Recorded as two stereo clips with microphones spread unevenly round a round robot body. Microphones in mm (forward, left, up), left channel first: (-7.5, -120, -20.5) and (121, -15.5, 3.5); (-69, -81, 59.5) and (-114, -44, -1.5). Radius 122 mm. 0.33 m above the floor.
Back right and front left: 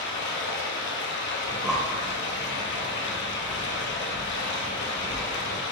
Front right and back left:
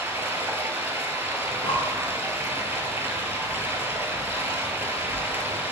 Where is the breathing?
55° right, 0.7 m.